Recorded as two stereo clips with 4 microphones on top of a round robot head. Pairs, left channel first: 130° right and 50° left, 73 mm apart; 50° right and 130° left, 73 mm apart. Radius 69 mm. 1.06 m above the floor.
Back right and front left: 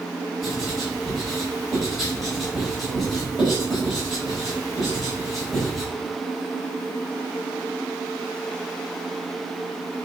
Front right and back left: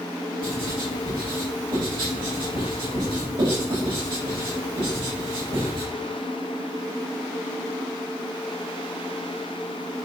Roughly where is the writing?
Behind left.